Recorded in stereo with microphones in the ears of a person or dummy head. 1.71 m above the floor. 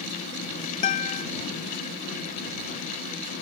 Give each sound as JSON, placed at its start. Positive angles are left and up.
{"t": 0.8, "sound": "a guitar", "side_deg": 40}